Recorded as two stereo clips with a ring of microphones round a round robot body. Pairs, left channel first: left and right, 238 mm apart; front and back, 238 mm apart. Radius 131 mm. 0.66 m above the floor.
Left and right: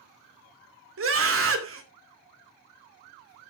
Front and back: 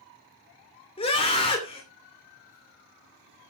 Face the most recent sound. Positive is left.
turn(degrees=-65)